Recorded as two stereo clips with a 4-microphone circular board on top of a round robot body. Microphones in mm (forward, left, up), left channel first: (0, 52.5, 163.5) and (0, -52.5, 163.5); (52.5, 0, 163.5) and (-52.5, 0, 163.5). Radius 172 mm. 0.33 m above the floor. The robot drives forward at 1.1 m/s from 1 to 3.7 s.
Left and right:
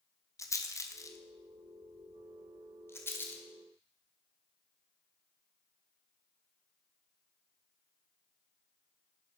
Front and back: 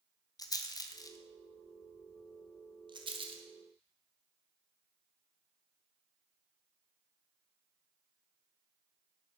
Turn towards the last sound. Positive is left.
turn(degrees=160)